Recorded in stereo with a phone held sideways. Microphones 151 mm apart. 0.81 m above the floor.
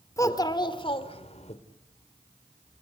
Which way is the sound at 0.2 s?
20° left (ahead or behind).